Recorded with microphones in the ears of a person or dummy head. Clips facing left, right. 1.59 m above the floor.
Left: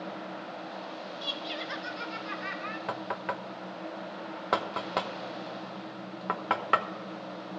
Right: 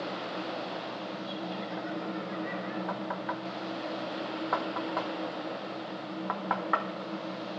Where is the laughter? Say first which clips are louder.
Right 2 dB; 85° left, 0.8 m.